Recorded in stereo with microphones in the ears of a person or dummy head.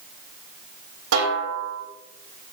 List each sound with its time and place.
1.1 s a snare drum: 70° right (ahead or behind), 3.5 m